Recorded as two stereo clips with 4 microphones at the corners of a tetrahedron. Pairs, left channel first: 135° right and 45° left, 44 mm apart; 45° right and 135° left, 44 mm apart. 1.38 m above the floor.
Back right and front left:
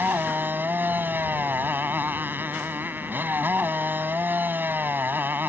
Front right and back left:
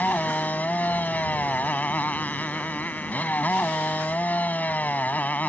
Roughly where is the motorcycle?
Ahead.